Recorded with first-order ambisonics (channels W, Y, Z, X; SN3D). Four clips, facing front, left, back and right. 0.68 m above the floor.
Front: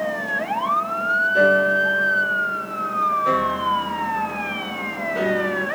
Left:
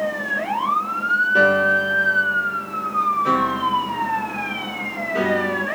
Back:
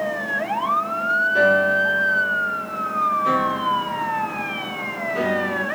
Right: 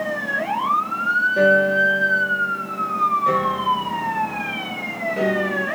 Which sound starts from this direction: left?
A piano, at 1.4 s.